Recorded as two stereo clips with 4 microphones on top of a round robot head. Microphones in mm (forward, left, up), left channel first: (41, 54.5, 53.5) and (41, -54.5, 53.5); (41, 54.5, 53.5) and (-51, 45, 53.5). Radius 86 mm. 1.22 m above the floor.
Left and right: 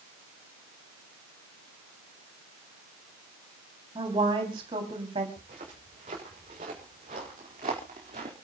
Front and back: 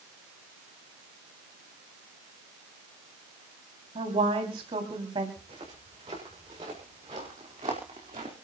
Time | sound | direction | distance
4.0 | a woman speaking | 145° right | 3.5 m
5.4 | footsteps | 125° right | 7 m